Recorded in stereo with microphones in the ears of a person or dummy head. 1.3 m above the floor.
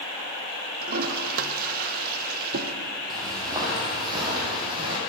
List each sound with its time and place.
0.8 s a toilet flushing: 50° right (ahead or behind), 0.8 m
3.1 s footsteps: 25° right (ahead or behind), 2.5 m; by 5.0 s 30° right (ahead or behind), 3.5 m